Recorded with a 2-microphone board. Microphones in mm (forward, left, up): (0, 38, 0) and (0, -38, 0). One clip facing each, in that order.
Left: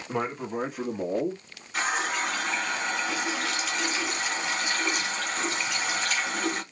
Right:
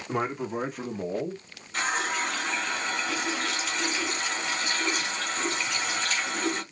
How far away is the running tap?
About 2.5 m.